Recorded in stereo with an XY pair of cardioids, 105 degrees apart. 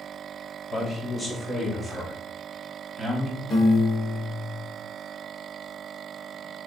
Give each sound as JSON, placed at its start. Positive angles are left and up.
{"t": 0.7, "sound": "a man speaking", "azimuth_deg": 25, "distance_m": 2.5}
{"t": 3.5, "sound": "a piano", "azimuth_deg": 35, "distance_m": 3.0}